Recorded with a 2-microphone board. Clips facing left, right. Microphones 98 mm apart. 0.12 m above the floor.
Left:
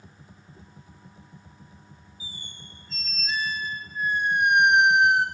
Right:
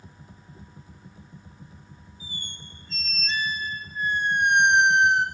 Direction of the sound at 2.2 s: 5° left (ahead or behind).